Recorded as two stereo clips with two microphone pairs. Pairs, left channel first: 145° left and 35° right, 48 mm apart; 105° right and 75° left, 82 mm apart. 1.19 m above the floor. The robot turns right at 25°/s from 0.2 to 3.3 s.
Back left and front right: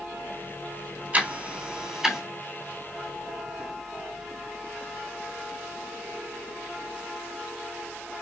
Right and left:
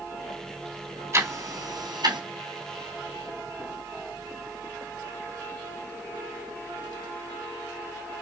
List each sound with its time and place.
1.1 s ticking: 20° left, 3 m; by 2.2 s 45° left, 3 m